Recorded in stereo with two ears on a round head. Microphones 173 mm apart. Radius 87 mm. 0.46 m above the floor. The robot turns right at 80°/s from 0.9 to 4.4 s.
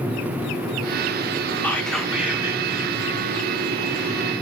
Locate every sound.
1.6 s whispering: 10° left (ahead or behind), 0.8 m; by 2.6 s 15° right (ahead or behind), 0.8 m